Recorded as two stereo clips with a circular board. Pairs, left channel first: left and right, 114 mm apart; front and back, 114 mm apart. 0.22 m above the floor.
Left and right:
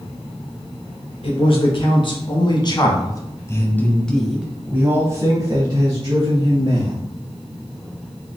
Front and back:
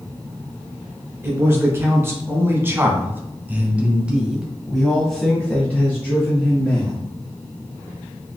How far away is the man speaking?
About 2 m.